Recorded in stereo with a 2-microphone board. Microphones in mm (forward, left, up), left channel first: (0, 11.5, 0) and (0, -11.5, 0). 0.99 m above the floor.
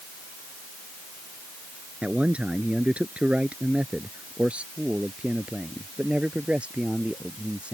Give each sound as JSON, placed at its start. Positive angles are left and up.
{"t": 2.0, "sound": "a man speaking", "side_deg": -80}